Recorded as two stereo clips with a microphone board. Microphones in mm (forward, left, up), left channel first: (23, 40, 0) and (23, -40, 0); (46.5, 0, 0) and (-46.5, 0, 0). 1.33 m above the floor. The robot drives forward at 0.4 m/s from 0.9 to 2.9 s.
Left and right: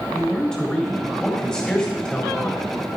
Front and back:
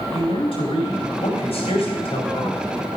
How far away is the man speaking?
About 4.5 m.